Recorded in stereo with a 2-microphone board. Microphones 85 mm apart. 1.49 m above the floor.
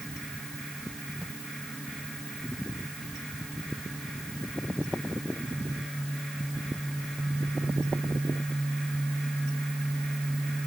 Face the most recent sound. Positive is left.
No sound to turn to.